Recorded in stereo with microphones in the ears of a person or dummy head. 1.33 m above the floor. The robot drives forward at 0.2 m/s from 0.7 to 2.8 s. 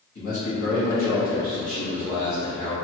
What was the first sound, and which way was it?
A man speaking, 55° left (ahead or behind).